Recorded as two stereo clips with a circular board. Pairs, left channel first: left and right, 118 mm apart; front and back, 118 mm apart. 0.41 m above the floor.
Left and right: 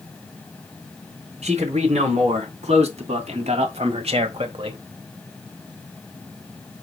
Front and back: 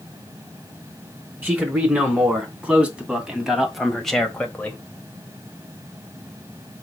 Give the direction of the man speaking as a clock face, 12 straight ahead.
4 o'clock.